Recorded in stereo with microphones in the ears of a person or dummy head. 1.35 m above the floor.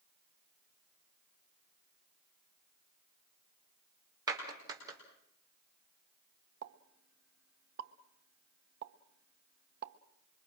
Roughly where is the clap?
Centre.